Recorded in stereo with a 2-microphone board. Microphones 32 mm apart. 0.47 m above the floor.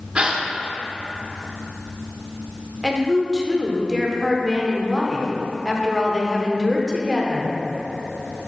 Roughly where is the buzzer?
I don't hear a buzzer.